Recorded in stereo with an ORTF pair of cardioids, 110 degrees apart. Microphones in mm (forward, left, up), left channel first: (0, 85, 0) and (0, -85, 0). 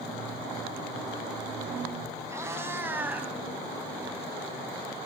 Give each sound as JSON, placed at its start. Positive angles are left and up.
{"t": 2.3, "sound": "a cat meowing", "azimuth_deg": -15, "distance_m": 6.0}